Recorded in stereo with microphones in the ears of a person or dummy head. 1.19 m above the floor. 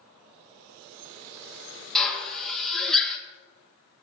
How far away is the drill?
About 1.5 m.